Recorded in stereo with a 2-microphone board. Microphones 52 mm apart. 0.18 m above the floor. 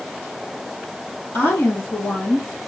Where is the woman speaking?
55° left (ahead or behind), 3 m; by 2.5 s 50° left (ahead or behind), 4 m.